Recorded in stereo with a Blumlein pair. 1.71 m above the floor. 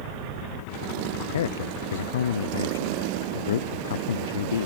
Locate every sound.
1.3 s a man speaking: 65° left